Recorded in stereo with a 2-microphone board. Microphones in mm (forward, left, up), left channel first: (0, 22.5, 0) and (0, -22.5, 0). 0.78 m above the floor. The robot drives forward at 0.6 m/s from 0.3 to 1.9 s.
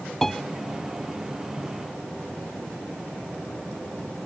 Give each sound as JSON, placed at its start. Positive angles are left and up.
{"t": 0.2, "sound": "a piano", "side_deg": 5}